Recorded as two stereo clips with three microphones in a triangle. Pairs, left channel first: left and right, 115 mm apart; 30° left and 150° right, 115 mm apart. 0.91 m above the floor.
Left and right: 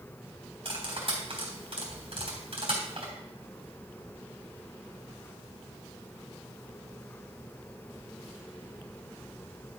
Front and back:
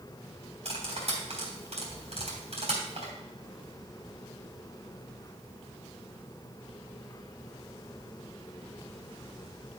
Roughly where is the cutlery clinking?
Behind right.